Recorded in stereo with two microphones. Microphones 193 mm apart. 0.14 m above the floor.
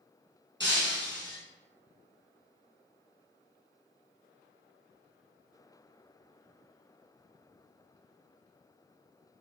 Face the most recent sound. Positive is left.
turn(degrees=-70)  # may be behind; listen again after turning